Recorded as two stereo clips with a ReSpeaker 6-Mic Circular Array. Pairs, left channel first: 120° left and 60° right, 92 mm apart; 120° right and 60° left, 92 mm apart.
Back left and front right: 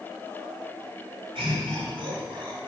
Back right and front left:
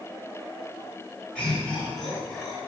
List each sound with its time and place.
1.4 s laughter: 40° right, 5 m; by 2.6 s 30° right, 5 m